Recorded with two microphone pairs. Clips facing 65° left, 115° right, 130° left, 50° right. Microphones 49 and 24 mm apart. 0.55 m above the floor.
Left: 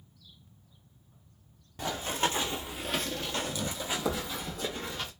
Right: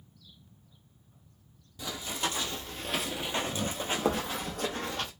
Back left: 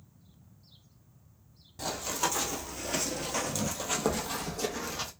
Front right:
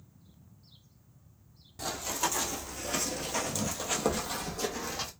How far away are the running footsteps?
About 0.8 m.